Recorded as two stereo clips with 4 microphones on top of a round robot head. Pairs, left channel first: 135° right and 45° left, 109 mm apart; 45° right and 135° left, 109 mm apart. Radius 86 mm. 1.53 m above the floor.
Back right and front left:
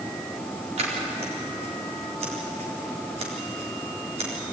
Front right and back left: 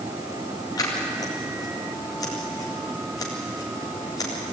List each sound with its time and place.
0.8 s scissors: 10° left, 4 m